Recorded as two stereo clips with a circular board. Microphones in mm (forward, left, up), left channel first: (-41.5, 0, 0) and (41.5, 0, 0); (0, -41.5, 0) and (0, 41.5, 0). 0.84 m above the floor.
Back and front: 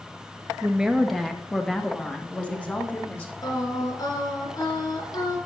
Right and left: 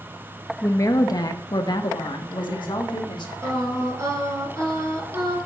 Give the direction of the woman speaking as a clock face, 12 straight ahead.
2 o'clock.